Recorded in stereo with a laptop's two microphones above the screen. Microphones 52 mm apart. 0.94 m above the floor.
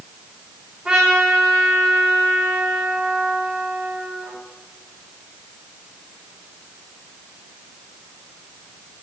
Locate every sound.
0.8 s a trumpet: 20° right (ahead or behind), 3 m